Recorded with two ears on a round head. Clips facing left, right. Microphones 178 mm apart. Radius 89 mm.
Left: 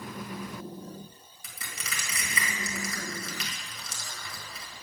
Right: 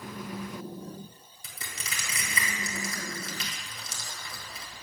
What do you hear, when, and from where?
1.4 s crushing: 25° right (ahead or behind), 2.0 m